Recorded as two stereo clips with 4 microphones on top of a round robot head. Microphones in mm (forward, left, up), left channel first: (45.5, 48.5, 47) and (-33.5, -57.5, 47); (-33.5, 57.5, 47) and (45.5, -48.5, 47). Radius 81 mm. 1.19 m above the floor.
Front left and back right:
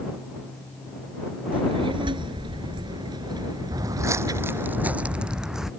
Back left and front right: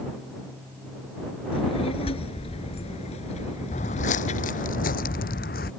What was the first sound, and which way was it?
A child speaking, straight behind.